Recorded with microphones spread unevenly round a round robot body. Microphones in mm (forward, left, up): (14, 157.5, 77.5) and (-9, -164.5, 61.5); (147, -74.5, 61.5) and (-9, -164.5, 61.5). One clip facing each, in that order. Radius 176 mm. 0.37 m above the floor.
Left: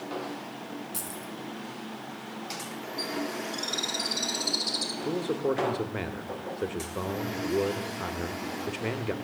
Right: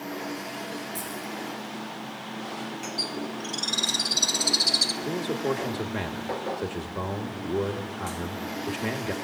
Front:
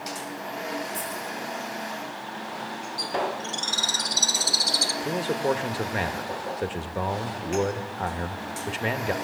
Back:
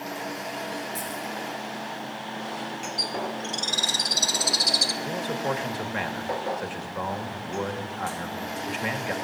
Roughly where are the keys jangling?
Left.